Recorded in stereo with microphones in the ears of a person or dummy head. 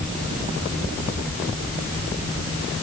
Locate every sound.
Only background noise.